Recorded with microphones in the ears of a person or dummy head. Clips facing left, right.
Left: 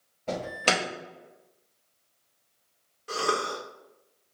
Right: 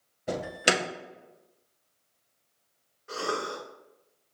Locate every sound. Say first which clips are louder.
0.3 s an alarm: even; 20° right (ahead or behind), 0.5 m
3.1 s a cough: left 3 dB; 50° left (ahead or behind), 1.6 m